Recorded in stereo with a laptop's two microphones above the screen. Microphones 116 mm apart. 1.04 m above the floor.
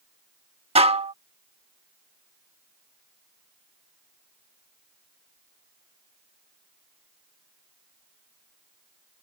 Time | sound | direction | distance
0.8 | dishes clattering | 60° right (ahead or behind) | ?